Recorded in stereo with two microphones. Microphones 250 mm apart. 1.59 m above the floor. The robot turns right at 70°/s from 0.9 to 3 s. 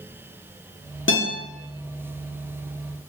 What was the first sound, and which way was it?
A guitar, 50° left (ahead or behind).